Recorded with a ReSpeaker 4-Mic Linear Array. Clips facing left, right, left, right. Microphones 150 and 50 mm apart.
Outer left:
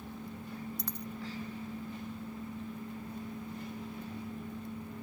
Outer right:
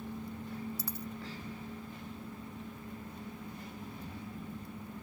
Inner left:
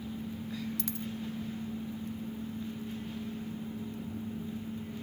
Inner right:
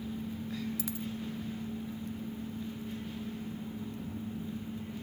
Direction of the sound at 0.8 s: 5° right (ahead or behind).